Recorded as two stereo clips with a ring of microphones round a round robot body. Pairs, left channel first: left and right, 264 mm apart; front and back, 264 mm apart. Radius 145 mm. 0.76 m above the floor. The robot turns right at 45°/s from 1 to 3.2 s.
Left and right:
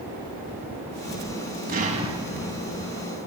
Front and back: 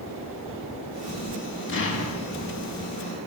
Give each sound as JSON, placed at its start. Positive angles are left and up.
{"t": 1.7, "sound": "an explosion", "azimuth_deg": -40, "distance_m": 1.2}